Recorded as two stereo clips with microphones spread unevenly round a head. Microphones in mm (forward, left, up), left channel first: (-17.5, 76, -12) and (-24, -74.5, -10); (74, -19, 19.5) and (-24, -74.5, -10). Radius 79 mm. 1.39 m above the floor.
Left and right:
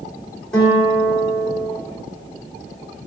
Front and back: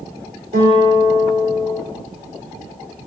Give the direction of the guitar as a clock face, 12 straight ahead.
6 o'clock.